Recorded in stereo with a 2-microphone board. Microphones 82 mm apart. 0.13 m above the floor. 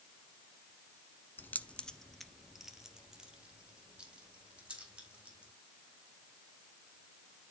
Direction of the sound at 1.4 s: 25° left (ahead or behind).